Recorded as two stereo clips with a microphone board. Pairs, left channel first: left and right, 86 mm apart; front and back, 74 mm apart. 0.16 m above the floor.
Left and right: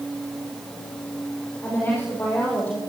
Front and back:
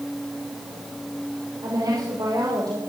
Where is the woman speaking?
155° left, 6 m; by 2.8 s 160° left, 7.5 m.